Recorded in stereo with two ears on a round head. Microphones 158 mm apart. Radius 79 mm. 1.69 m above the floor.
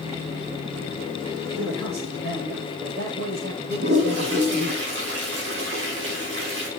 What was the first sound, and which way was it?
A man speaking, 85° right.